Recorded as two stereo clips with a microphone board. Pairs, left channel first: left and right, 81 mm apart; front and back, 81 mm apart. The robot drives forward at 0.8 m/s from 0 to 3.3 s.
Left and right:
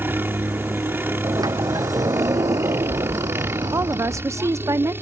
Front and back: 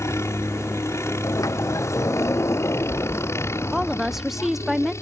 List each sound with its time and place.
0.0 s a helicopter: 40° right
1.2 s a sliding door: 50° right; by 4.3 s 55° right
3.7 s a woman speaking: 95° right